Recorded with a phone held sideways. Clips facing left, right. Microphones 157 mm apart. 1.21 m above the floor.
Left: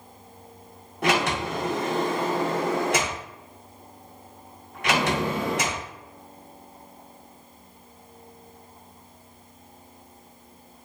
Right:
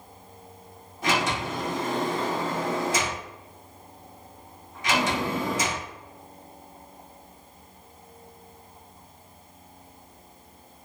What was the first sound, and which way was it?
A sliding door, 65° left (ahead or behind).